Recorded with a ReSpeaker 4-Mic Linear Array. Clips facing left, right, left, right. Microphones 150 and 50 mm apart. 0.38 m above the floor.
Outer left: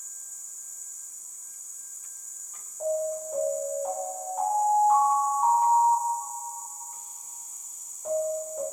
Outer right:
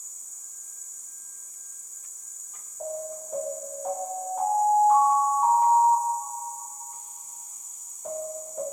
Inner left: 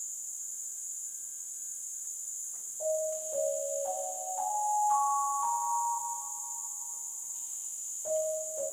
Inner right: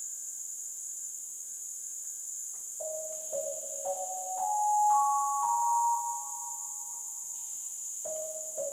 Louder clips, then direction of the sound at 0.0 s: Even, even; 5° left (ahead or behind).